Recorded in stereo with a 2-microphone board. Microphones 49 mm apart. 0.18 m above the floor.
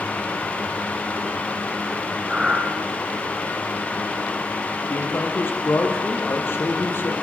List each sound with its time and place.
2.3 s breathing: 15° right (ahead or behind), 4 m
4.9 s a man speaking: 50° left (ahead or behind), 5.5 m